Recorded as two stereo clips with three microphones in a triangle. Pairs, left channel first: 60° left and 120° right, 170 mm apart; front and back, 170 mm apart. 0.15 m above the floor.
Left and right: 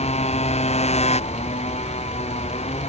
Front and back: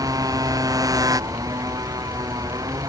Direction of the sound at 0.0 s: 110° left.